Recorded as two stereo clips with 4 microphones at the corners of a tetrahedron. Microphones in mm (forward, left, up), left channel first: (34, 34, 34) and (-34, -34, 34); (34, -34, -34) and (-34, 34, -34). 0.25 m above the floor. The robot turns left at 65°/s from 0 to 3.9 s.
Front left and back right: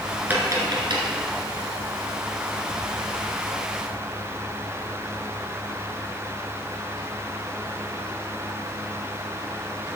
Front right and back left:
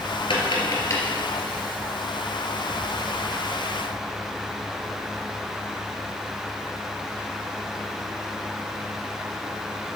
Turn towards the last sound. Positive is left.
turn(degrees=65)